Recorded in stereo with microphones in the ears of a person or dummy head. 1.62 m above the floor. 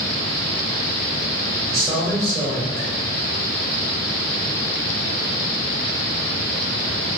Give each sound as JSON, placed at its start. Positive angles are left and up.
{"t": 1.7, "sound": "a man speaking", "side_deg": 0, "distance_m": 0.8}